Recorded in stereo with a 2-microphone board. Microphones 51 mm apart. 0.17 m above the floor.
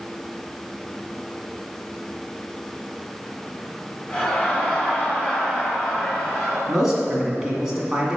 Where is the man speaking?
10° right (ahead or behind), 1.7 m.